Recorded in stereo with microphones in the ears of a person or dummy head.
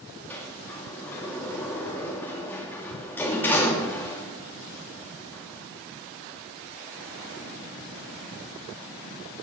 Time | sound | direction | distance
0.3 | a sliding door | 10° left (ahead or behind) | 2.5 m